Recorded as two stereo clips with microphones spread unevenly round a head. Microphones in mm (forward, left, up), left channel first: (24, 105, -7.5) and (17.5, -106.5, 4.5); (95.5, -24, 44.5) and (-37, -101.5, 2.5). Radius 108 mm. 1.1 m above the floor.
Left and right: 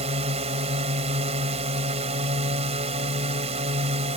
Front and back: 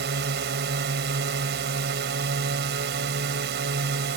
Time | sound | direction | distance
0.0 | a drone | 155° right | ?